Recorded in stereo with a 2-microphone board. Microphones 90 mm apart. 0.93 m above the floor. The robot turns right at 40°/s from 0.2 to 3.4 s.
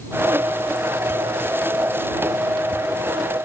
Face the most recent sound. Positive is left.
No sound to turn to.